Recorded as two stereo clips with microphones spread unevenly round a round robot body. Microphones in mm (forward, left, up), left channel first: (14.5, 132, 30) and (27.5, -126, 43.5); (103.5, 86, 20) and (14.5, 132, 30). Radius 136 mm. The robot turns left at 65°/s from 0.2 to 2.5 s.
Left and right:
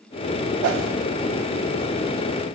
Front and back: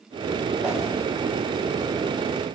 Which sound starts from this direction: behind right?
A whoosh, at 0.6 s.